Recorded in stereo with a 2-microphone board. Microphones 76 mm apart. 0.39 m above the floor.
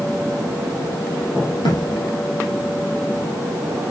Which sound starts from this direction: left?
A thud, at 1.6 s.